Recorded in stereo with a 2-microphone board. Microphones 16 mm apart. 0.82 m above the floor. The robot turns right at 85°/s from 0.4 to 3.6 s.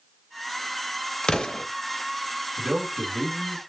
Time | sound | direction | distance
1.2 | an explosion | 100° left | 0.6 m
2.6 | a man speaking | 60° right | 1.7 m